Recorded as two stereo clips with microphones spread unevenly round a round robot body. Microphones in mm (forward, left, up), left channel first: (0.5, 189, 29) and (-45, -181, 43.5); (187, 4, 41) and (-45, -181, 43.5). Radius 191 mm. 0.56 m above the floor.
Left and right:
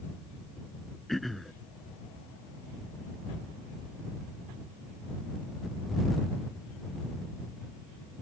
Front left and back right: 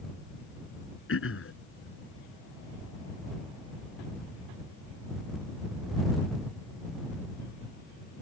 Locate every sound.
1.1 s throat clearing: 5° right